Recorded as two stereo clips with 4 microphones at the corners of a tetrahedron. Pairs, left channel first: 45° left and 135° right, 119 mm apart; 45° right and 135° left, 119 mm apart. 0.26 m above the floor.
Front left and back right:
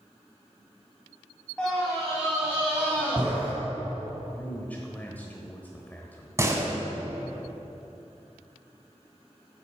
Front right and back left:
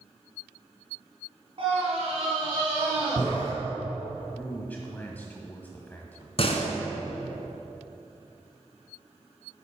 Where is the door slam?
70° right, 1.4 m.